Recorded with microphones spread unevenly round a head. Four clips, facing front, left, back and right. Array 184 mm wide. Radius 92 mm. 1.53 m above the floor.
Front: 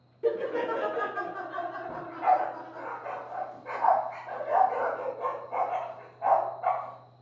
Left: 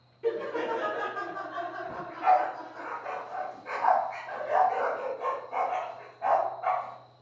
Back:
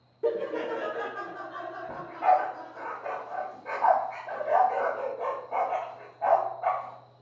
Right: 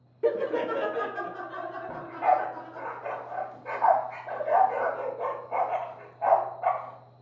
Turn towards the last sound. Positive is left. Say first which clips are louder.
# even, back 2 dB
turn(degrees=-130)